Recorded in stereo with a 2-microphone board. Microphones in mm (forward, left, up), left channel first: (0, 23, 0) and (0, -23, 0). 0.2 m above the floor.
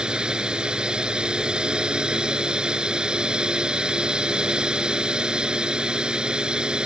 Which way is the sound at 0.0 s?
15° right (ahead or behind).